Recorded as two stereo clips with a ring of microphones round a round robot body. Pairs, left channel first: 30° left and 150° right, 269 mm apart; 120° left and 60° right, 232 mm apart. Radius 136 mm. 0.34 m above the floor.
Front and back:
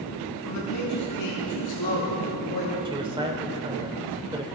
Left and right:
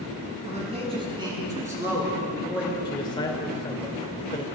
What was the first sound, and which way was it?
A man speaking, straight ahead.